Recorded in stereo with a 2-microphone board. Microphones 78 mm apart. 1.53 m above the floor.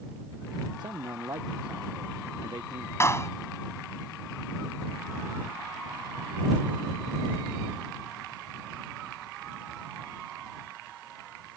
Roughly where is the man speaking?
Right.